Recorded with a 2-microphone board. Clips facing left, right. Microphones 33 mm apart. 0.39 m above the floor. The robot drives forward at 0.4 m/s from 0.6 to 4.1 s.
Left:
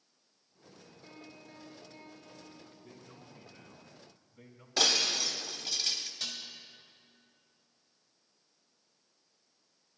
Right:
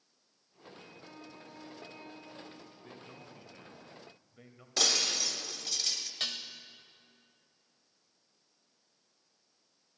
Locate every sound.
1.0 s a piano: 70° right (ahead or behind), 3 m; by 3.1 s 75° right (ahead or behind), 3 m
2.8 s a man speaking: 45° right (ahead or behind), 1.3 m; by 4.7 s 40° right (ahead or behind), 1.5 m
4.8 s breaking glass: 10° left (ahead or behind), 0.9 m
6.2 s dishes clattering: 60° right (ahead or behind), 0.9 m